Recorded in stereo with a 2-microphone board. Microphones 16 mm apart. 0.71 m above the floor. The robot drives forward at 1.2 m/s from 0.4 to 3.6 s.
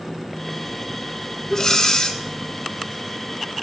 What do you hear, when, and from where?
1.5 s breathing: 30° left (ahead or behind), 1.6 m; by 2.2 s 45° left (ahead or behind), 1.1 m